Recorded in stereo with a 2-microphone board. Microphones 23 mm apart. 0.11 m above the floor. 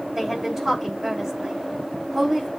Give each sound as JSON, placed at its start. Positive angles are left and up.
{"t": 0.1, "sound": "a woman speaking", "side_deg": -20, "distance_m": 6.0}